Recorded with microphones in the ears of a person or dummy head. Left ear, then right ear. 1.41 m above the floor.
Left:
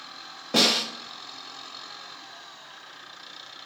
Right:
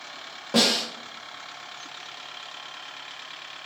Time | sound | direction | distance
0.5 | a snare drum | centre (ahead or behind) | 0.8 m